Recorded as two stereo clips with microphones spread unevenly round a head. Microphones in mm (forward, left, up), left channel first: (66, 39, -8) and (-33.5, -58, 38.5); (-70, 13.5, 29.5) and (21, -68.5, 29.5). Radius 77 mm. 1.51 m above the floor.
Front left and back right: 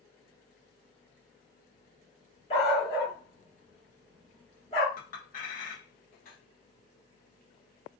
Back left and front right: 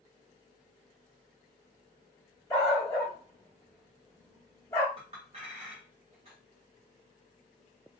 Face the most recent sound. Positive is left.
turn(degrees=10)